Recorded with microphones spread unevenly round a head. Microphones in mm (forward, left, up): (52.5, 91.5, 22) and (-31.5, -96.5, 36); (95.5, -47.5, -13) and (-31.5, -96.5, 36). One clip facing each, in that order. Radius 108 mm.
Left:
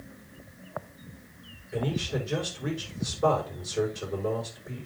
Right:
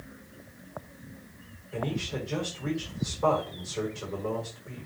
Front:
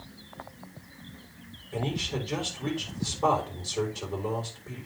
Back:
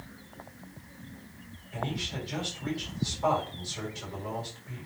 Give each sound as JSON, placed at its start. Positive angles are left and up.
{"t": 1.7, "sound": "a man speaking", "azimuth_deg": 0, "distance_m": 4.5}